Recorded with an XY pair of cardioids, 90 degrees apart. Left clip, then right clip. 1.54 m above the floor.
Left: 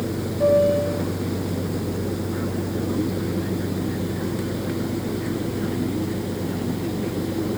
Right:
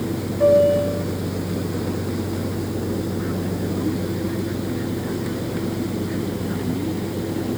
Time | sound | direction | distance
0.4 | a piano | 10° right | 9.5 m